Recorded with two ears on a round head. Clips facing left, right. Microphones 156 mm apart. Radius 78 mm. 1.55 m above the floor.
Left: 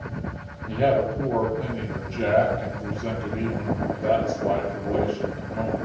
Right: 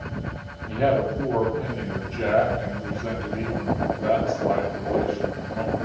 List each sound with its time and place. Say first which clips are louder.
0.7 s a man speaking: even; 10° left (ahead or behind), 1.2 m